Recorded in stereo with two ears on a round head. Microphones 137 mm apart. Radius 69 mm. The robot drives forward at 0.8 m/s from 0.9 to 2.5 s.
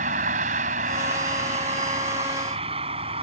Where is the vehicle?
55° right (ahead or behind); by 3.2 s 40° right (ahead or behind).